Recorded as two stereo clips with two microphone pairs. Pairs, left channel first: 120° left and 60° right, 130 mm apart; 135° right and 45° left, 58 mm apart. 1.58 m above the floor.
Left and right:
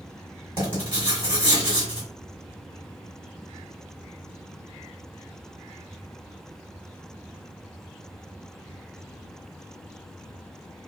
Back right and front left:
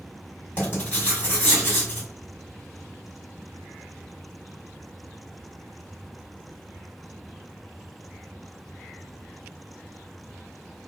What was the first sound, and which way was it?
Writing, 85° right.